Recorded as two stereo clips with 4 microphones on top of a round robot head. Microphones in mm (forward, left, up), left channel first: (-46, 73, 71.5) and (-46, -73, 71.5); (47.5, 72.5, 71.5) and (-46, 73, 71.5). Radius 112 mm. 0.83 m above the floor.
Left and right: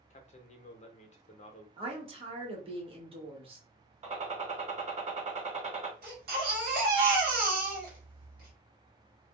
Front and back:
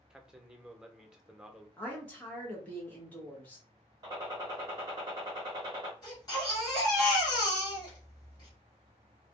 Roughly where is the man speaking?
Left.